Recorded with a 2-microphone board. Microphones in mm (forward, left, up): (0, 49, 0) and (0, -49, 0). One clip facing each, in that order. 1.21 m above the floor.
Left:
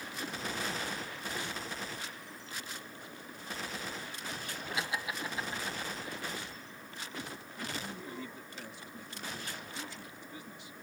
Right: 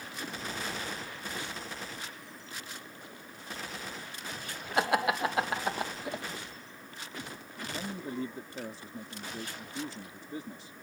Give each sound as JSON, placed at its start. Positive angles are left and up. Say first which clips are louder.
{"t": 4.8, "sound": "laughter", "louder": "right 11 dB", "side_deg": -55}
{"t": 7.7, "sound": "a man speaking", "louder": "right 8 dB", "side_deg": -40}